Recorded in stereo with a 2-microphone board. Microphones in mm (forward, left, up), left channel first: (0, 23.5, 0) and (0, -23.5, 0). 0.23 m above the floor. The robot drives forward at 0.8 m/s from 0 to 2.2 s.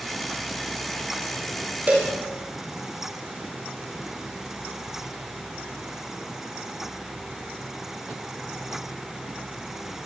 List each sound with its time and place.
1.9 s a cowbell: 40° right (ahead or behind), 9 m